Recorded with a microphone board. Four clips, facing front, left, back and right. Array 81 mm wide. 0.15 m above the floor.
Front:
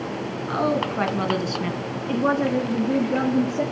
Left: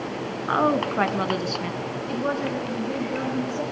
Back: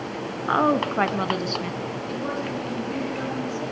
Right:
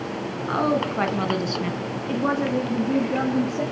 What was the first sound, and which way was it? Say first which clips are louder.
A woman speaking: left 1 dB, back 3 dB; 155° left.